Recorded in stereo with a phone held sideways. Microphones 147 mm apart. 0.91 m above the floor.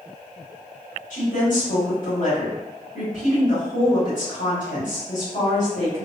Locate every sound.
1.1 s a woman speaking: 60° left (ahead or behind), 1.4 m